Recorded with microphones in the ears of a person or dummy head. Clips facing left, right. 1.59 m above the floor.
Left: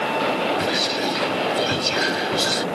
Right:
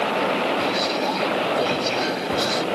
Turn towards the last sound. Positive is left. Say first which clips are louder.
# right 1 dB
turn(degrees=15)  # may be behind; listen again after turning